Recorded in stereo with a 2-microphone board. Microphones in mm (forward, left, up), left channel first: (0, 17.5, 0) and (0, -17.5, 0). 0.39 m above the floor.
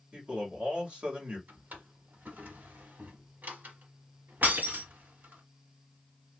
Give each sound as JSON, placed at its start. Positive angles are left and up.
{"t": 0.1, "sound": "a man speaking", "side_deg": -40, "distance_m": 1.9}
{"t": 1.5, "sound": "a drawer", "side_deg": -65, "distance_m": 1.0}
{"t": 4.4, "sound": "breaking glass", "side_deg": -60, "distance_m": 2.5}